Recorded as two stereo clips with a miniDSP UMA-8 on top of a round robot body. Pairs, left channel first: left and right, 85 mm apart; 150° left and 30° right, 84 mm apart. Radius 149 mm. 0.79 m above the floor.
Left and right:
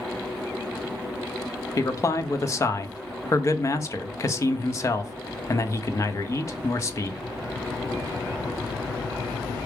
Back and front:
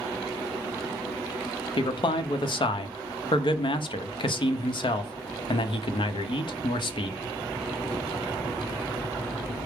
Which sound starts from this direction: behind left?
A man speaking, at 1.8 s.